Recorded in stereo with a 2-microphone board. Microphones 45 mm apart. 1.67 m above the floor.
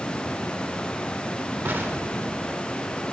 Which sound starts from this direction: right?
An explosion, at 1.6 s.